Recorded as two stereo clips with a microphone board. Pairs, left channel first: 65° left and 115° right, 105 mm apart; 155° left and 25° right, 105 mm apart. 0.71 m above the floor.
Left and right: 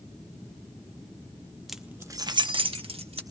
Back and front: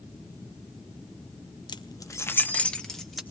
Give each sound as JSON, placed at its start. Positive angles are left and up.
{"t": 1.7, "sound": "keys jangling", "azimuth_deg": 160, "distance_m": 0.6}